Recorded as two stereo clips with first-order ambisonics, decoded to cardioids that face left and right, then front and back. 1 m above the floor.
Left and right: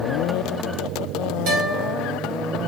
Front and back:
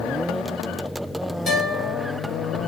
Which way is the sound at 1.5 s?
65° right.